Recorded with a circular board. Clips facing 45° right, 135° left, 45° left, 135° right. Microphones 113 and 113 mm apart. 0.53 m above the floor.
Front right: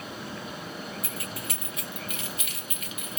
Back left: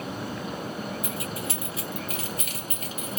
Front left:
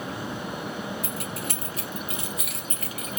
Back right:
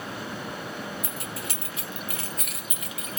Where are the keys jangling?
65° left, 1.3 m; by 3.2 s straight behind, 0.9 m.